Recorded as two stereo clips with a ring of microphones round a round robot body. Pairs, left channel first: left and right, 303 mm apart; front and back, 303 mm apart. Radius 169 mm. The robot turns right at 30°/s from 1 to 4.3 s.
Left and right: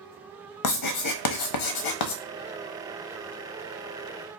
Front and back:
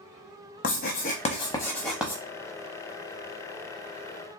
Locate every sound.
0.6 s writing: 65° left, 0.6 m; by 2.2 s 100° left, 0.6 m